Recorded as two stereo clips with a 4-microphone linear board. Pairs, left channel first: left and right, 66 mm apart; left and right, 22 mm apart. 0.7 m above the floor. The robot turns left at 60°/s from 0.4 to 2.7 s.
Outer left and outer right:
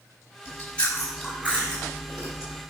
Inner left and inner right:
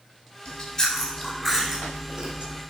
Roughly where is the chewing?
Ahead left.